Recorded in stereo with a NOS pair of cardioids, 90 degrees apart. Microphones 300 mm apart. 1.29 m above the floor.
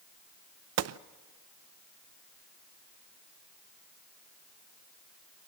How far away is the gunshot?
About 0.7 m.